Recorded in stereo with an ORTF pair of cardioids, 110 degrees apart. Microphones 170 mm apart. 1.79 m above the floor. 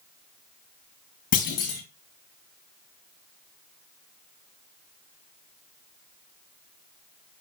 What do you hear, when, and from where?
1.3 s a clunk: 60° left, 3 m